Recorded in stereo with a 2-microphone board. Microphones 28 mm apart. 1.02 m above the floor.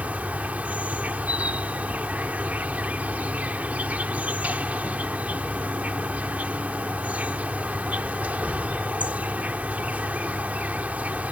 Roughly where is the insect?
Right.